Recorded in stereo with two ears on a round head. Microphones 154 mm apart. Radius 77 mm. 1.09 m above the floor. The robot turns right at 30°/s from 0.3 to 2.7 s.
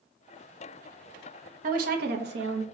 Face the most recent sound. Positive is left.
turn(degrees=-100)